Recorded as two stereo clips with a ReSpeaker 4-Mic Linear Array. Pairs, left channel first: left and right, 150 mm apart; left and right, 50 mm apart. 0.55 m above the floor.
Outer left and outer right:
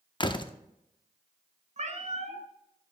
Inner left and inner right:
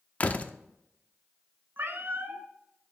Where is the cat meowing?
50° right (ahead or behind), 0.9 m.